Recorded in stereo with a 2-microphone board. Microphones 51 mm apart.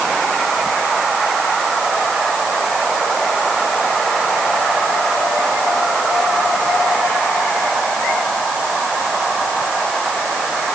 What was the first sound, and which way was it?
Only background noise.